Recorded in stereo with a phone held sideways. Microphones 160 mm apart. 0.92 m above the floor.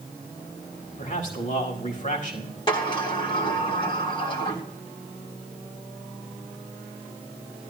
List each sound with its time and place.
1.0 s a man speaking: 55° left (ahead or behind), 5.5 m
2.7 s a sliding door: 35° left (ahead or behind), 3 m